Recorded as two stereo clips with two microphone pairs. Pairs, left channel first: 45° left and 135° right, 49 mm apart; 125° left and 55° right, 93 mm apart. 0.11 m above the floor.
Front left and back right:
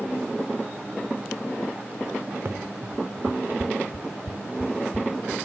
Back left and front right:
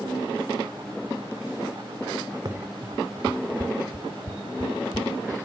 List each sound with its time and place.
2.5 s running footsteps: 95° right; by 5.3 s 85° right